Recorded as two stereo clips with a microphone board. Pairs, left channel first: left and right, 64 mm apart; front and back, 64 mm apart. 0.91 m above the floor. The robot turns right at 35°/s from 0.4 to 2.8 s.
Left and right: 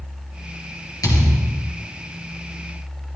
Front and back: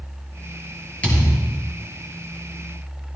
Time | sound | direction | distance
1.0 | a thud | 70° left | 3 m